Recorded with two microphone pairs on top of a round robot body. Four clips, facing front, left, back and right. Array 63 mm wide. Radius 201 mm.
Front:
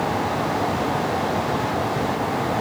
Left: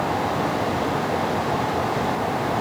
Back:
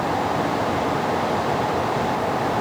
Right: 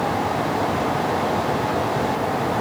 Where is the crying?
I don't hear crying.